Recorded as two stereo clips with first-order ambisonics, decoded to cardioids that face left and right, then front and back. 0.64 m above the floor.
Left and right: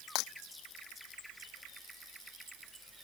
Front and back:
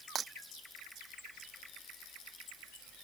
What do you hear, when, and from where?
0.1 s breaking glass: 120° left